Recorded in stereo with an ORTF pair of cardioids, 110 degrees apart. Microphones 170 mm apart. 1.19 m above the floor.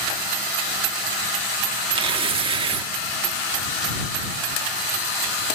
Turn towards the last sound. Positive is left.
turn(degrees=-30)